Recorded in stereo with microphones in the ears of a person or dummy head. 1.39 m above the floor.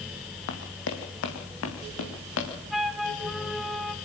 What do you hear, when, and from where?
0.5 s running footsteps: 60° left (ahead or behind), 3 m; by 2.5 s 75° left (ahead or behind), 5.5 m
2.7 s a flute: 5° right (ahead or behind), 1.5 m